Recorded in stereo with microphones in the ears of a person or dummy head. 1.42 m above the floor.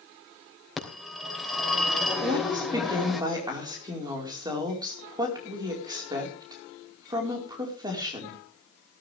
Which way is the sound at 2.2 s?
25° right (ahead or behind).